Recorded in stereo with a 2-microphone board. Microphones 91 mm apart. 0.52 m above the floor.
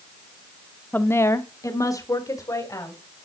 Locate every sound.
0.9 s a woman speaking: 20° left (ahead or behind), 0.8 m; by 3.0 s 40° left (ahead or behind), 2.5 m